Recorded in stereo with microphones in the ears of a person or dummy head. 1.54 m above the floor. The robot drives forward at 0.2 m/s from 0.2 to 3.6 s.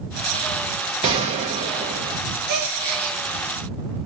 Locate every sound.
1.0 s a gunshot: 20° right (ahead or behind), 0.7 m
2.5 s a gasp: 50° right (ahead or behind), 0.8 m; by 3.2 s 45° right (ahead or behind), 0.9 m